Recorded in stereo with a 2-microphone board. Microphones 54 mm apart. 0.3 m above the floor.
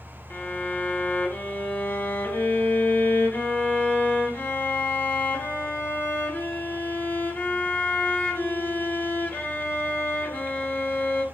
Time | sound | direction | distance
0.3 | a violin | 40° left (ahead or behind) | 0.6 m